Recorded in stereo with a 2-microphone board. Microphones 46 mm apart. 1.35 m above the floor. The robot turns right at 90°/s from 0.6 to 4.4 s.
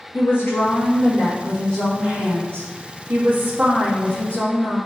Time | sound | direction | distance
0.1 | a woman speaking | 60° left | 2 m